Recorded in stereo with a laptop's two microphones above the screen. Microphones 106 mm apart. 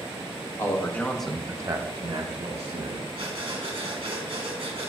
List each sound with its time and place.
0.6 s a man speaking: 30° left (ahead or behind), 1.5 m; by 3.0 s 70° right (ahead or behind), 1.9 m
3.1 s breathing: 60° right (ahead or behind), 1.6 m